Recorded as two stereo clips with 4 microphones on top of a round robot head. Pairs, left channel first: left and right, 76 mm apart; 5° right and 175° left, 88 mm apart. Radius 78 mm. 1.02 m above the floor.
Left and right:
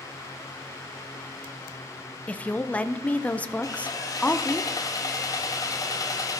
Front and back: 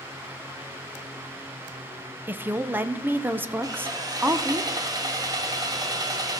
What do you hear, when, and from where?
2.3 s a woman speaking: 140° left, 0.7 m
3.6 s sawing: 130° left, 1.3 m